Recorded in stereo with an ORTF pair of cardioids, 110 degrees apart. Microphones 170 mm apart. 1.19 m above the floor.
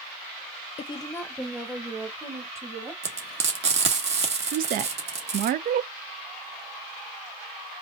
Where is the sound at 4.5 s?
55° right, 0.5 m.